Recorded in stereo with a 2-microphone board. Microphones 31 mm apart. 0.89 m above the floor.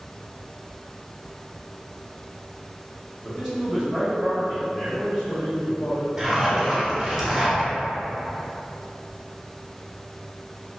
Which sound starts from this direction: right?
A zipper, at 6.2 s.